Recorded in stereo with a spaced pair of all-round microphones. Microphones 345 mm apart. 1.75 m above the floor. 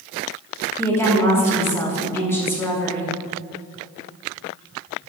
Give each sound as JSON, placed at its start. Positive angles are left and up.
{"t": 0.8, "sound": "a woman speaking", "side_deg": 5, "distance_m": 3.0}